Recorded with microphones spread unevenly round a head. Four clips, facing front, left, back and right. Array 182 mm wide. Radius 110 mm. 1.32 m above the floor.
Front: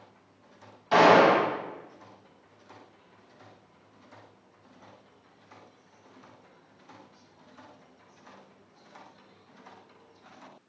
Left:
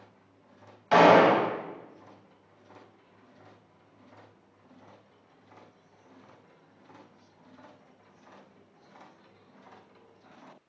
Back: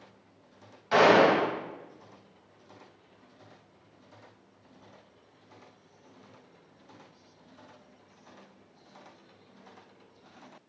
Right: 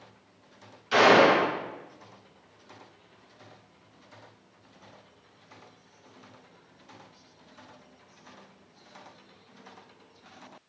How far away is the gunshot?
About 3.5 m.